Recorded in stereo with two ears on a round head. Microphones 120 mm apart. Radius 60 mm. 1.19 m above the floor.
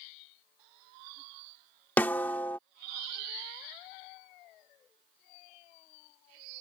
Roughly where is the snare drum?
Centre.